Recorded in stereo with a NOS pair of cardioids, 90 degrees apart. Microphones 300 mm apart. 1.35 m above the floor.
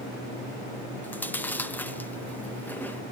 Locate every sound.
1.0 s chewing: 5° left, 1.0 m